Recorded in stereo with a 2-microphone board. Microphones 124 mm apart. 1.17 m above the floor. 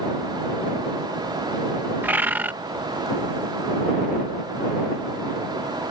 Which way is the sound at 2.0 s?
15° right (ahead or behind).